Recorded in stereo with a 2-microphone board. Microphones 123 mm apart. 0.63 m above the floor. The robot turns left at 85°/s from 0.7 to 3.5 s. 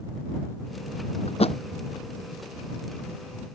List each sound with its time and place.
1.3 s a thud: 60° left (ahead or behind); by 1.6 s 50° left (ahead or behind)